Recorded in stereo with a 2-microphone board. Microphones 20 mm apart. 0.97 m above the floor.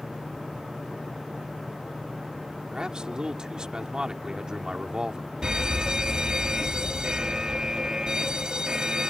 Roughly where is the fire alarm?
Right.